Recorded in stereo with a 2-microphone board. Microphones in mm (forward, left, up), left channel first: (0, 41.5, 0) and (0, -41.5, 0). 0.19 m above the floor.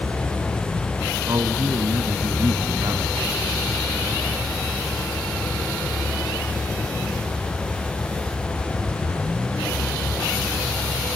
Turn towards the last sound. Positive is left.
turn(degrees=-45)  # may be behind; listen again after turning